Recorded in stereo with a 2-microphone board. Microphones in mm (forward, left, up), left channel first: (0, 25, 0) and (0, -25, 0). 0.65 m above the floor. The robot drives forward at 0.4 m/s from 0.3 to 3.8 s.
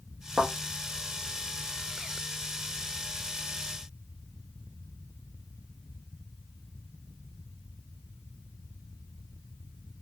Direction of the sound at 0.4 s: 40° right (ahead or behind).